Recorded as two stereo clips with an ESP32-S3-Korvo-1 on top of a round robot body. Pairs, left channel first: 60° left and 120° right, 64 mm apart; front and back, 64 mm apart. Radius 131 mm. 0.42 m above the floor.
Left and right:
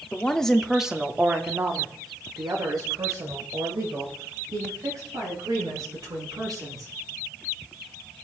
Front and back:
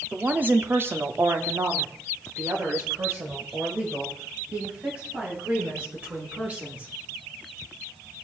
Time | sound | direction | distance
0.1 | a woman speaking | 120° left | 1.4 m